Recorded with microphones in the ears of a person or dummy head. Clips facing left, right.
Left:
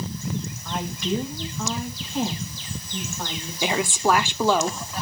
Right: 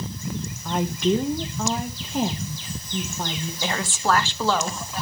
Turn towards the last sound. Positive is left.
turn(degrees=15)  # may be behind; listen again after turning